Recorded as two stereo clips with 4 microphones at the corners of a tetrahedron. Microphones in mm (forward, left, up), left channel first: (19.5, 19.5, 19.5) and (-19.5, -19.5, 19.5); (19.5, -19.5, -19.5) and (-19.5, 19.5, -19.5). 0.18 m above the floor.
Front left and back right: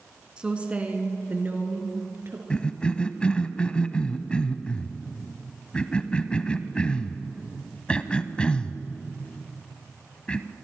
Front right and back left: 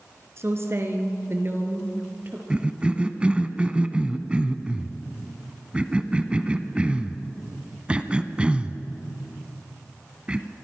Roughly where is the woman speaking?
Behind left.